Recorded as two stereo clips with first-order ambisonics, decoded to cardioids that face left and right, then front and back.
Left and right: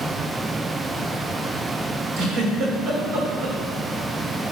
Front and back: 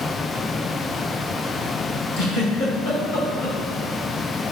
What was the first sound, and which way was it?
A giggle, 30° right.